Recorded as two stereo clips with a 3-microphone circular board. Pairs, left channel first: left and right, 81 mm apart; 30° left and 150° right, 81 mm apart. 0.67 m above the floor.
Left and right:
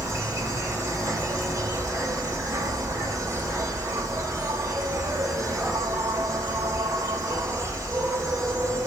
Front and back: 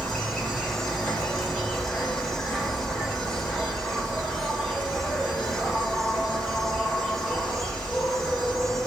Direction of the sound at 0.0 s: 50° right.